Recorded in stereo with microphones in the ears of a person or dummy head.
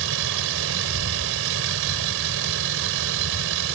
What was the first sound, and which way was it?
A vehicle, 75° right (ahead or behind).